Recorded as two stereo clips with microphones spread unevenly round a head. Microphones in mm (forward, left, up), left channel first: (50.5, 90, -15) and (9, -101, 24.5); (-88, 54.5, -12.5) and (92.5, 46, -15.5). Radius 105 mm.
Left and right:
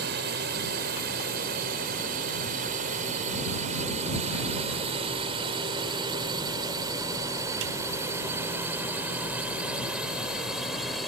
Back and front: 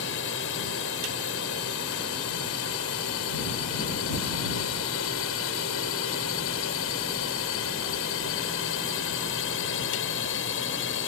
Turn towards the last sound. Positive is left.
turn(degrees=170)